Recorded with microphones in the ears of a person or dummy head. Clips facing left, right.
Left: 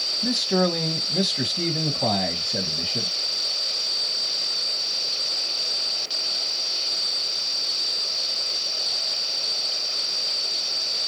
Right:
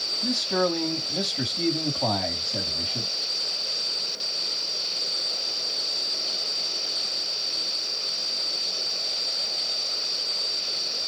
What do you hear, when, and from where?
0.2 s a man speaking: 10° left (ahead or behind), 1.7 m